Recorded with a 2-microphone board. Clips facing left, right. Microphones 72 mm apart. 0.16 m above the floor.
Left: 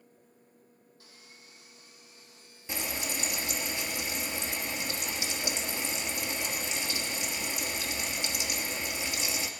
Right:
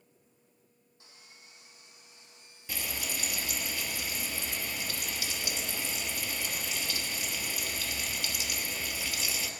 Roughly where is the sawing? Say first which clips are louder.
Even; right.